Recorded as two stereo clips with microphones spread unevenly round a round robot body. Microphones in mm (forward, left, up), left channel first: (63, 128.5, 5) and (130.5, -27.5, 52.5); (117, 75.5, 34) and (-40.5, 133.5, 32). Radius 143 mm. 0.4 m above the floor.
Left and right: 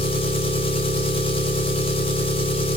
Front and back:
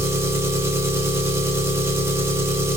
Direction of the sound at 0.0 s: 90° left.